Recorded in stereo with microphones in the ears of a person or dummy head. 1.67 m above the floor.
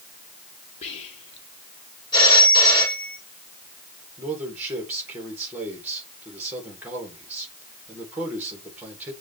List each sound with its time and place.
0.8 s whispering: 35° left (ahead or behind), 1.9 m
2.1 s a phone ringing: 25° left (ahead or behind), 3.5 m
4.2 s a man speaking: 10° right (ahead or behind), 3 m